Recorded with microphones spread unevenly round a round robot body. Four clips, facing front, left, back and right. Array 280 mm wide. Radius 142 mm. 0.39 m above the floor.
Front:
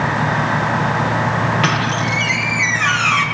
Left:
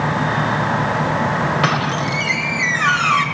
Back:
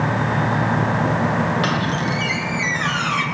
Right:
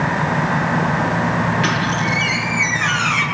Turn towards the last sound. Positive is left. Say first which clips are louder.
# even, front 3 dB
turn(degrees=65)